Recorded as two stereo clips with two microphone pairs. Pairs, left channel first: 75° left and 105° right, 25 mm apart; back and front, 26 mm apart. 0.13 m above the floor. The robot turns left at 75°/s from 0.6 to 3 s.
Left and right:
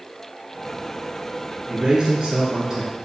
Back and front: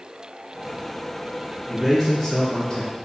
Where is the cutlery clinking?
No cutlery clinking in this recording.